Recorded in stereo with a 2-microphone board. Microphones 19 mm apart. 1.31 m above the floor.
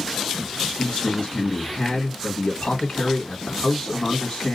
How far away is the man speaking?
About 1.8 m.